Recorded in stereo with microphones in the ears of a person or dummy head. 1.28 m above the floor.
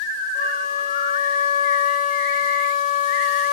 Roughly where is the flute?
Left.